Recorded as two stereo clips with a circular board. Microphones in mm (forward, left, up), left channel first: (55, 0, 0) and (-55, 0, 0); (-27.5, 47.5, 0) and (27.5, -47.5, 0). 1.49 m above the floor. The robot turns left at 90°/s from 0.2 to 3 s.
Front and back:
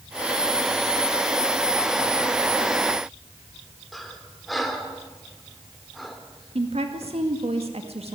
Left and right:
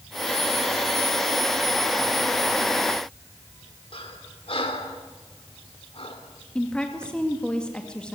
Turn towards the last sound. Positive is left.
turn(degrees=-160)